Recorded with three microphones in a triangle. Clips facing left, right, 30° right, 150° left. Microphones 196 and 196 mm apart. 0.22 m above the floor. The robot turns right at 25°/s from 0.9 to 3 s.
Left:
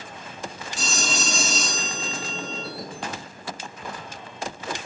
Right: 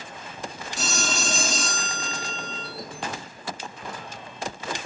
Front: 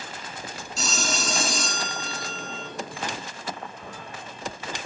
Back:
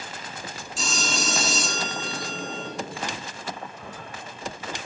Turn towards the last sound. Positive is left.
turn(degrees=-25)